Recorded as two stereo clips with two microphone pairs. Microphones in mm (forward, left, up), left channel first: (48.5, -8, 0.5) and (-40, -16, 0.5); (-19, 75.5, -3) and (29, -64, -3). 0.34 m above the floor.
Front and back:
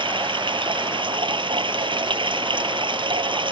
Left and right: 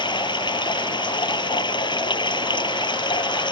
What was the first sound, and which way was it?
Running water, 165° left.